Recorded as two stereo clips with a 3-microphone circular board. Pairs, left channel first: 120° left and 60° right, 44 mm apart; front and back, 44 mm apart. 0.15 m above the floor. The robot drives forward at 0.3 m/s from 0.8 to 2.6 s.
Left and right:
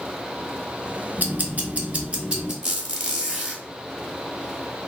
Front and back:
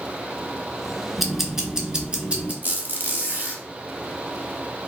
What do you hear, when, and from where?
1.2 s ticking: 95° right, 0.8 m; by 2.5 s 125° right, 0.9 m
2.6 s a squeak: 135° right, 1.2 m